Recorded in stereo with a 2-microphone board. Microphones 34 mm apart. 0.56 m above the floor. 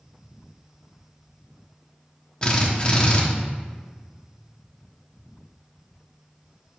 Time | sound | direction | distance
2.4 | a drill | 25° left (ahead or behind) | 1.2 m